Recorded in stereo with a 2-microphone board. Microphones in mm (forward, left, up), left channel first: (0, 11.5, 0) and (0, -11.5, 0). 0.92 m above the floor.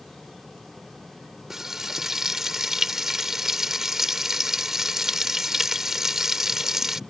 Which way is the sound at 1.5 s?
15° right (ahead or behind).